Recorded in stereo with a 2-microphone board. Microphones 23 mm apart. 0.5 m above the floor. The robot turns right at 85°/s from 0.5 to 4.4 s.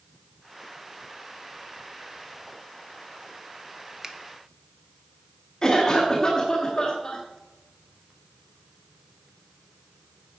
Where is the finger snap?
25° right (ahead or behind), 0.7 m.